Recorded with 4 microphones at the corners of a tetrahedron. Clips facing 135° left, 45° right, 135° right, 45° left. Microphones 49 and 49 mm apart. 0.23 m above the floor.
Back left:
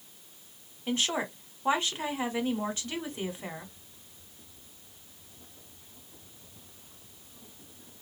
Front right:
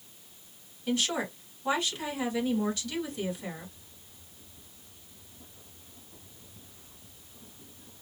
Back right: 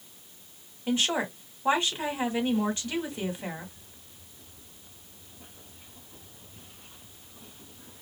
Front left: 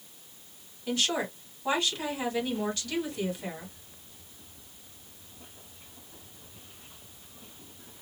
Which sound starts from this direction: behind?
A woman speaking, at 0.9 s.